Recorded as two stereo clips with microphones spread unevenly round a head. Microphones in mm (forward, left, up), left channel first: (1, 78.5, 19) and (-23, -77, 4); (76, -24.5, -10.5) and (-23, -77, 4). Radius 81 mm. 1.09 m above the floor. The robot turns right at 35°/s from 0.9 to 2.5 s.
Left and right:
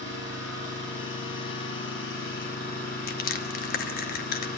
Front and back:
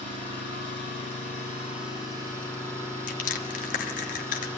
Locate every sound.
0.0 s an engine running: 60° left, 6 m; by 4.6 s 115° left, 6 m
3.1 s crushing: 40° left, 1.3 m